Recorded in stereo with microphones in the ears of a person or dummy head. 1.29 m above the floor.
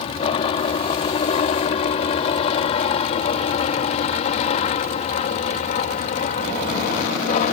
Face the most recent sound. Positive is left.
turn(degrees=40)  # may be behind; listen again after turning